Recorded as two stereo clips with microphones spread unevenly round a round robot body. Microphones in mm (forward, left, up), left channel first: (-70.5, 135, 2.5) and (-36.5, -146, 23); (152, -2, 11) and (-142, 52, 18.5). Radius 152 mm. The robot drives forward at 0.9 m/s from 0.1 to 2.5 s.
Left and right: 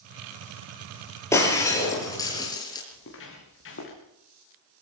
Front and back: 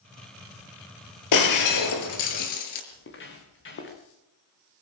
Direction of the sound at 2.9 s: 45° left.